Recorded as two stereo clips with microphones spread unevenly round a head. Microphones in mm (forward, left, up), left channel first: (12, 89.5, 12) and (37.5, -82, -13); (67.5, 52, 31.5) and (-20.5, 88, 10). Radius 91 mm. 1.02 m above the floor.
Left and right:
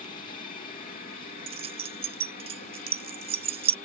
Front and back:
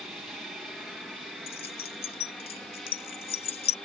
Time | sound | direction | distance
0.0 | an aircraft | 85° left | ?
1.5 | keys jangling | 20° right | ?